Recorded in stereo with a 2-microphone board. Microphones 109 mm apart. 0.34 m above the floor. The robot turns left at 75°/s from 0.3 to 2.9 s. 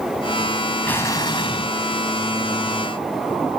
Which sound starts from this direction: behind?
An explosion, at 0.8 s.